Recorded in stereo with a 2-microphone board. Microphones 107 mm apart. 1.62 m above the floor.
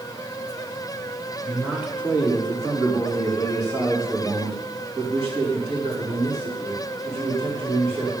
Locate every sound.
1.4 s a man speaking: 10° right (ahead or behind), 3.5 m; by 8.1 s 75° right (ahead or behind), 4.5 m